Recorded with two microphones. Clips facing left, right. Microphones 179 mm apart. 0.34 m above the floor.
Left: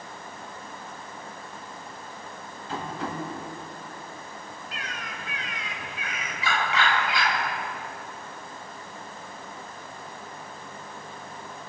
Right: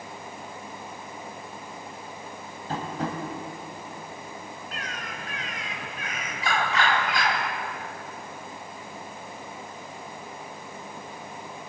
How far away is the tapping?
About 2.5 m.